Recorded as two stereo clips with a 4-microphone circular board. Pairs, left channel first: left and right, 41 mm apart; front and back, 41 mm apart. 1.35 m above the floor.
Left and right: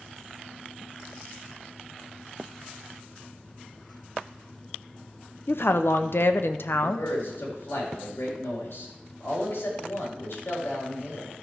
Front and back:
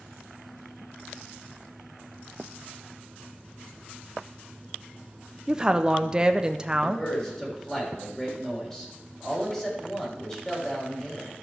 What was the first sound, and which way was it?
A woman speaking, 110° left.